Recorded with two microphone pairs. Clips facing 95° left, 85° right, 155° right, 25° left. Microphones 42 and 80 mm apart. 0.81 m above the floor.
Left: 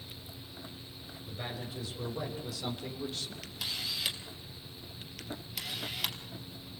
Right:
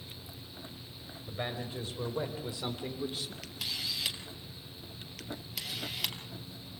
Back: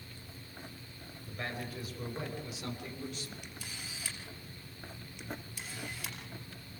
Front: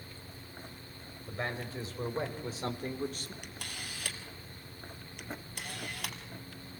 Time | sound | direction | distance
1.3 | a man speaking | 35° right | 5 m
3.4 | a camera shutter | 5° left | 3 m